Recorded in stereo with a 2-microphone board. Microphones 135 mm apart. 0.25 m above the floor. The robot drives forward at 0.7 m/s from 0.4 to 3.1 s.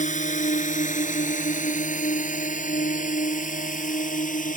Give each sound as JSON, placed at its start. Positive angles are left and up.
{"t": 0.0, "sound": "a drone", "side_deg": 65}